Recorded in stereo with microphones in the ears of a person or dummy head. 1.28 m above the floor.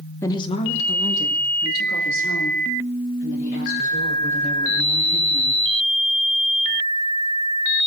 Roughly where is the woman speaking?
Centre.